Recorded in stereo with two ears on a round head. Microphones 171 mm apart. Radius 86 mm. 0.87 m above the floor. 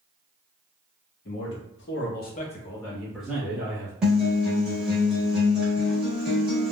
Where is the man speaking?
65° left (ahead or behind), 1.3 m; by 3.9 s 20° right (ahead or behind), 1.5 m.